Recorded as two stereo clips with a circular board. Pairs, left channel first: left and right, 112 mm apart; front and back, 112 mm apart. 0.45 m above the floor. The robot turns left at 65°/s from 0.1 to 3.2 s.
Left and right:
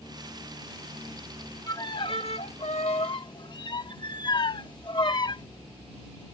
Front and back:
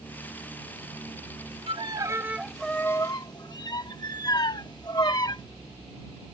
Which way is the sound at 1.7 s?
150° left.